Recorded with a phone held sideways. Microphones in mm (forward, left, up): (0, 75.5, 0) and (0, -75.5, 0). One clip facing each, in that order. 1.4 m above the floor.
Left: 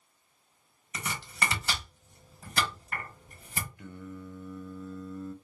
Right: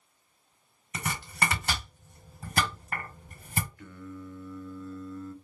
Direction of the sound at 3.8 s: 20° left (ahead or behind).